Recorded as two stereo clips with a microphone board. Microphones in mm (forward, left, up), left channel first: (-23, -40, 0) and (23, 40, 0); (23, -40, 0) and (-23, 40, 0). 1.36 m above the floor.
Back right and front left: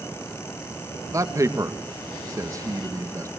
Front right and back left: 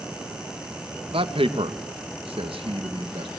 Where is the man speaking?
115° left, 2 m.